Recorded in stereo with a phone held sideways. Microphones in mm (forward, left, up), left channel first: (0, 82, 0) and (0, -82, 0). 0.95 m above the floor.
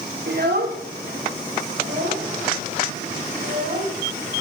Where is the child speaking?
85° right, 1.8 m; by 3.9 s 60° right (ahead or behind), 5 m.